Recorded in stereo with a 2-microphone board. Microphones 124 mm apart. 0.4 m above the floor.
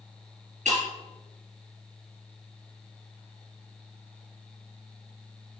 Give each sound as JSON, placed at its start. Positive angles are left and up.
{"t": 0.7, "sound": "breaking glass", "side_deg": -80, "distance_m": 4.5}